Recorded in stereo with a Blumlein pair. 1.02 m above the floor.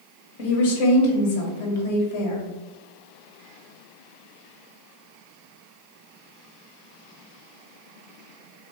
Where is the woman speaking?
55° left, 0.9 m.